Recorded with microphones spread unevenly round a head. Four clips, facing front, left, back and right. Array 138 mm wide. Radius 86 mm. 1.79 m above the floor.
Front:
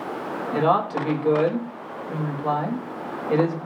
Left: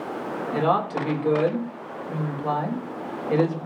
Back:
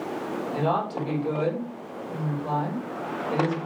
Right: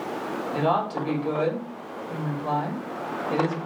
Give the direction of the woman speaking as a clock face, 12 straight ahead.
12 o'clock.